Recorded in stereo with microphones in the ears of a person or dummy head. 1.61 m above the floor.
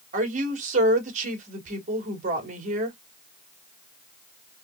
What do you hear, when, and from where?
0.1 s a woman speaking: 45° right (ahead or behind), 2 m